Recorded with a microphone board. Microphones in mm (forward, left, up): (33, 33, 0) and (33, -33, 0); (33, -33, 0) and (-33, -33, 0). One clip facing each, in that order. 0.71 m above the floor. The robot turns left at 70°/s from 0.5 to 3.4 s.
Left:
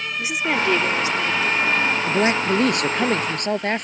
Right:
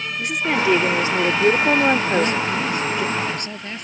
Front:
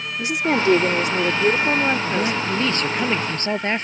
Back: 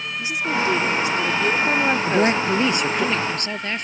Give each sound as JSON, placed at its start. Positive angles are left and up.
{"t": 0.2, "sound": "a woman speaking", "azimuth_deg": 5}
{"t": 2.1, "sound": "a man speaking", "azimuth_deg": 155}